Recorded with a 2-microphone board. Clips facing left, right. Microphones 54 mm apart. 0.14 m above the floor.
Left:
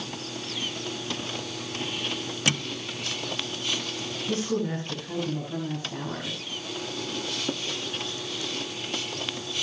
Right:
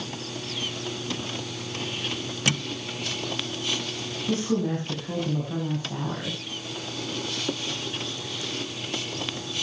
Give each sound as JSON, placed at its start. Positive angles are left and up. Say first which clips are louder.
{"t": 4.3, "sound": "a woman speaking", "louder": "right 2 dB", "side_deg": -20, "distance_m": 8.5}